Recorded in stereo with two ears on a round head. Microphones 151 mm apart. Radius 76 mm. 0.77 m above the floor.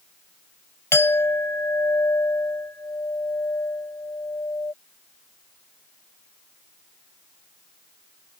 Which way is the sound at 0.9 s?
15° left (ahead or behind).